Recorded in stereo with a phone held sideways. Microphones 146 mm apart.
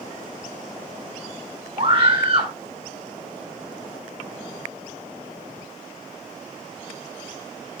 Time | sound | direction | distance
1.8 | a scream | 40° right (ahead or behind) | 3.5 m